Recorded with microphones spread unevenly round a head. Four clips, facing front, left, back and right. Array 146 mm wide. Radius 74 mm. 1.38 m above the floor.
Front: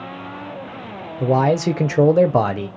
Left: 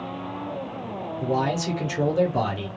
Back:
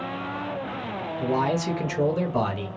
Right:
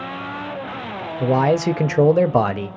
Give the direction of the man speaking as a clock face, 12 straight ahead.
1 o'clock.